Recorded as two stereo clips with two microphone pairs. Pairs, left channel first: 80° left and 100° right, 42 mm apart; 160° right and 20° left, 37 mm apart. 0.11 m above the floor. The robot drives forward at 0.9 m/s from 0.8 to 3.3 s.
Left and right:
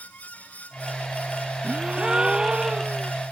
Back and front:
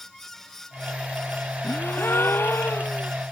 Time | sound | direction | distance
1.6 | a gasp | 170° right | ?